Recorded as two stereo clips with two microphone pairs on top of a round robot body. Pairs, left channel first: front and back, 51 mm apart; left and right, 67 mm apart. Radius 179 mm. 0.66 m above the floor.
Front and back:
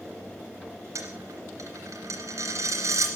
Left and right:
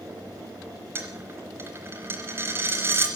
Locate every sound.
0.9 s a dropped coin: 150° right, 0.7 m